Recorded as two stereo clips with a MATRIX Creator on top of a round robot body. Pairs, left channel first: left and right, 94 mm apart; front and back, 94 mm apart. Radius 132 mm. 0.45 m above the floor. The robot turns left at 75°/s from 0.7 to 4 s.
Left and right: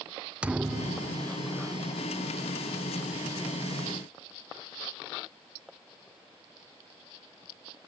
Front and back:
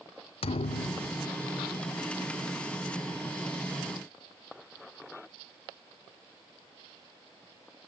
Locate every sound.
0.4 s a thud: 15° right, 0.6 m; by 1.3 s 60° right, 0.6 m